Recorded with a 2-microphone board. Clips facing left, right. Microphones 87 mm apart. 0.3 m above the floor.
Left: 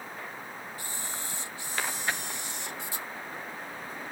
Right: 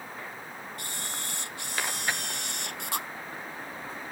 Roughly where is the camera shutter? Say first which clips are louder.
Even; right.